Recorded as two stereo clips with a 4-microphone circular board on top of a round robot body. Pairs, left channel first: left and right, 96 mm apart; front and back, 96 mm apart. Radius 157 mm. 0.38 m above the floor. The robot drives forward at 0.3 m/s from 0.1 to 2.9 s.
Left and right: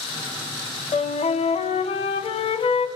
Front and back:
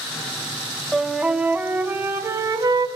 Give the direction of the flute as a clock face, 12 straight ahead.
9 o'clock.